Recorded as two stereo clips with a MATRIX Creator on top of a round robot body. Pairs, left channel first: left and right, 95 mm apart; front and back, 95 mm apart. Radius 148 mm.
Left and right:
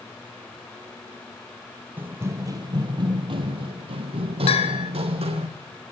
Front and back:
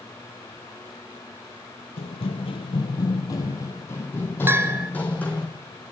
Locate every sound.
2.0 s running footsteps: 20° right, 1.2 m; by 5.5 s 75° right, 3 m
4.5 s a bell: 115° left, 0.8 m